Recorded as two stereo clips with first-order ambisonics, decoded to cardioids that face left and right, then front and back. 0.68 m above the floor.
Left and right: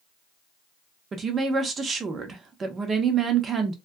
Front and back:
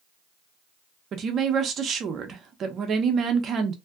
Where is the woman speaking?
145° right, 0.6 m.